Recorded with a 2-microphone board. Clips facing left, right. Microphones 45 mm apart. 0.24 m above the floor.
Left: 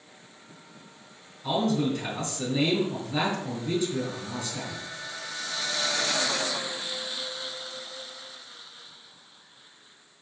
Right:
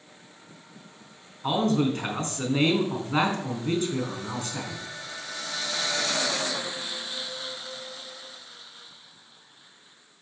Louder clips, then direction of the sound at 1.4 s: Right 2 dB; 50° right (ahead or behind).